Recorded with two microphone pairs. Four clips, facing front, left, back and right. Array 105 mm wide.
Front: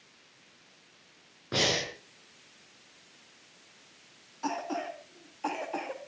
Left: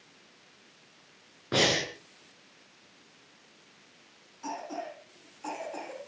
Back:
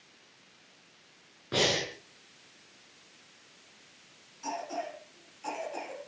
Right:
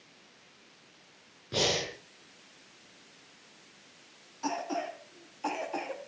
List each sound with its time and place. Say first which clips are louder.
1.5 s breathing: left 3 dB, back 1 dB; 80° left, 6.5 m
4.4 s a cough: right 4 dB, front 3 dB; 25° right, 4.5 m